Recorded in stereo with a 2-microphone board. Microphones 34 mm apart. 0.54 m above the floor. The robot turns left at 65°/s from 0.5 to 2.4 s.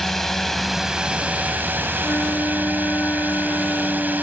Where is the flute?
70° left (ahead or behind); by 4.2 s 80° left.